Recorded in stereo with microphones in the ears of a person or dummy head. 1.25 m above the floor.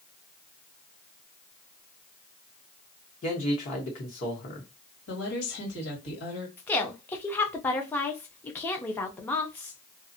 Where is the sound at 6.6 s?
15° left (ahead or behind), 0.7 m.